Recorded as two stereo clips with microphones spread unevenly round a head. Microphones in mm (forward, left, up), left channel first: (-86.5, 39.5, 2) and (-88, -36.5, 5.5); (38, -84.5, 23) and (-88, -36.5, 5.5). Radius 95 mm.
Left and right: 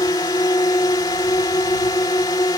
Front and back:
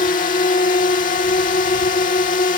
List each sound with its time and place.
0.0 s a drone: 30° left